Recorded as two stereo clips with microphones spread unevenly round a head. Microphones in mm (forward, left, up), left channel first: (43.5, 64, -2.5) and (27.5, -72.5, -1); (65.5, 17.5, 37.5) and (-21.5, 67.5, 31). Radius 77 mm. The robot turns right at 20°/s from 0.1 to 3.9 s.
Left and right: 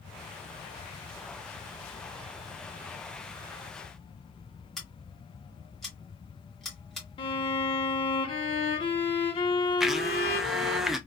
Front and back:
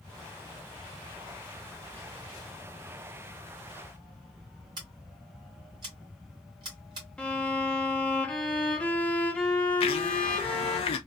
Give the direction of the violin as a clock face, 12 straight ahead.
10 o'clock.